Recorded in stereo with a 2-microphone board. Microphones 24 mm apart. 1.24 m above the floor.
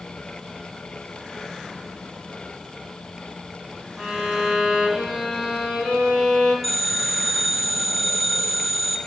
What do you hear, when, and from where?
4.0 s a violin: 35° right (ahead or behind), 5.5 m
6.6 s a phone ringing: 5° right (ahead or behind), 3 m